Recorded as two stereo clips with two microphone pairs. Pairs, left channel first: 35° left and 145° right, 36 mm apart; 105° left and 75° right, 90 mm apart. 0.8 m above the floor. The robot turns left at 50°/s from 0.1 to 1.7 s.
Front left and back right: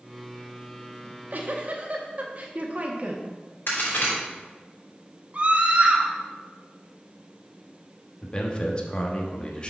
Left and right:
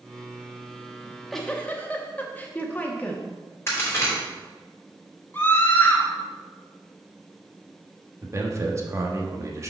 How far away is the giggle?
About 1.0 m.